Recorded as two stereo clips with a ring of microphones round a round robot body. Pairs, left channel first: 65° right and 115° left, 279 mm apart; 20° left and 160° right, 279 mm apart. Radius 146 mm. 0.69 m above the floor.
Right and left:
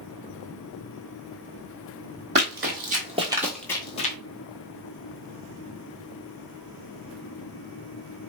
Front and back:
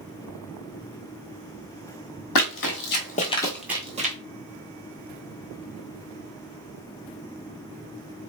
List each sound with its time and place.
2.4 s running footsteps: 60° left, 1.3 m; by 4.2 s 115° right, 0.8 m